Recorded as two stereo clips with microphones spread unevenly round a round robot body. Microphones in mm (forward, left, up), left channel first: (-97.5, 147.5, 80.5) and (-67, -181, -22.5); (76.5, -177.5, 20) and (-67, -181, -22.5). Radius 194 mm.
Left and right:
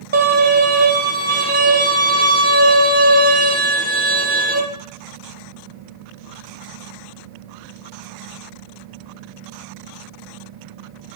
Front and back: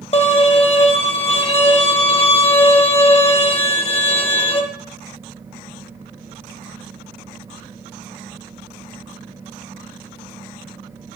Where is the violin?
10° right, 1.0 m.